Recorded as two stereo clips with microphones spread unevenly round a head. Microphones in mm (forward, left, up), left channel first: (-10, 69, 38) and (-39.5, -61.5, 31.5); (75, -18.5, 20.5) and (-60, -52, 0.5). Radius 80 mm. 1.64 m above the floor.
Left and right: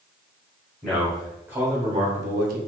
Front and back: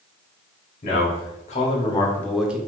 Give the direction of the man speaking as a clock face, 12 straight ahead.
12 o'clock.